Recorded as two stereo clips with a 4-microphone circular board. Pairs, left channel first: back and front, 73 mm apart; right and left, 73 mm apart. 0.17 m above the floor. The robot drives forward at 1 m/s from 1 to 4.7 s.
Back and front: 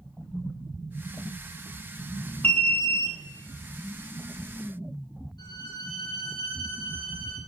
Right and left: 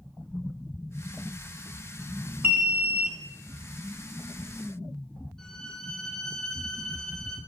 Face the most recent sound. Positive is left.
turn(degrees=-170)